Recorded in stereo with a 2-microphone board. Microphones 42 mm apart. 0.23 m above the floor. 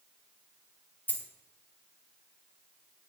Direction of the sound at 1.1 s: 45° left (ahead or behind).